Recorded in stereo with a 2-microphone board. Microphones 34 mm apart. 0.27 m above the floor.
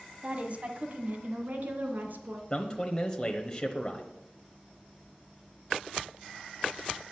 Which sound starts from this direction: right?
A woman speaking, at 0.2 s.